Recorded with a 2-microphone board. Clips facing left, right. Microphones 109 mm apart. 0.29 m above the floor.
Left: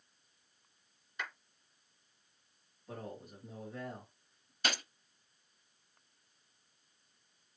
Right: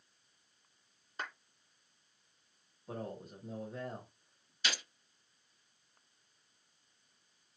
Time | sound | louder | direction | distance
1.2 | a clap | right 1 dB | 40° right (ahead or behind) | 2.5 m
2.9 | a man speaking | right 3 dB | 20° right (ahead or behind) | 1.7 m
4.6 | a gunshot | left 3 dB | 55° left (ahead or behind) | 0.6 m